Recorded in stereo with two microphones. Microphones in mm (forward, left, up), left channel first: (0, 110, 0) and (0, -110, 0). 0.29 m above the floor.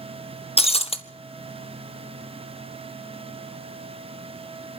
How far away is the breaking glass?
About 0.8 m.